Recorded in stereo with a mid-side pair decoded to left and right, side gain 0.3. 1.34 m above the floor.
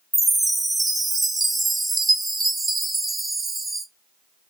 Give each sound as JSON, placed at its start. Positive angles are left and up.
{"t": 0.1, "sound": "a chime", "azimuth_deg": -25, "distance_m": 0.8}